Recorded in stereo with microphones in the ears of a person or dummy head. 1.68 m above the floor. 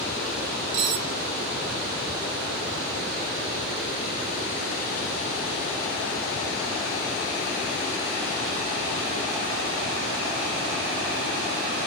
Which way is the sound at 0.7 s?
30° right (ahead or behind).